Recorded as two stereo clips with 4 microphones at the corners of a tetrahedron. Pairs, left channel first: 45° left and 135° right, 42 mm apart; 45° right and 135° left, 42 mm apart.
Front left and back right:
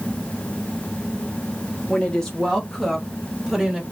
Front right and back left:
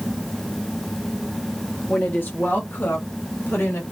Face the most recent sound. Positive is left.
turn(degrees=-60)